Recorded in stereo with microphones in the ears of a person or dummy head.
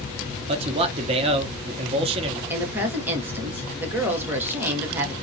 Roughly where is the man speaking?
Right.